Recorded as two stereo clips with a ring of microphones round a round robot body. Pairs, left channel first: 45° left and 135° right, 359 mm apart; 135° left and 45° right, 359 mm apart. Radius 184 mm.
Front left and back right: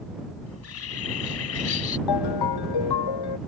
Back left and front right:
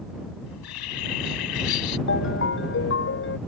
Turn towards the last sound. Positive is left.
turn(degrees=75)